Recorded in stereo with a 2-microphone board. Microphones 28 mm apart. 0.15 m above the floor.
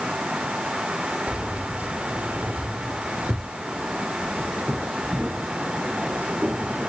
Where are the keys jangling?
50° right (ahead or behind), 2 m; by 6.9 s 80° right, 6 m.